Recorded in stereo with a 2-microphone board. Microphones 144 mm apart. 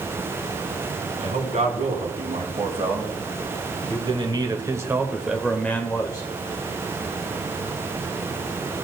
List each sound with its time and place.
1.2 s a man speaking: 55° right (ahead or behind), 2.5 m; by 6.3 s 30° left (ahead or behind), 0.9 m